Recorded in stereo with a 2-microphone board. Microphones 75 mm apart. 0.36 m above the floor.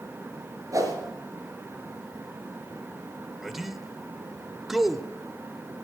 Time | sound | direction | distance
0.7 | a whoosh | 50° right (ahead or behind) | 3 m
3.4 | a man speaking | 5° right (ahead or behind) | 0.9 m